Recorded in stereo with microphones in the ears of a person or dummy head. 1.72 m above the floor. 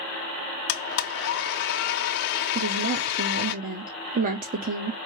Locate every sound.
0.7 s a blender: 45° left (ahead or behind), 0.8 m
2.5 s a woman speaking: 45° right (ahead or behind), 0.9 m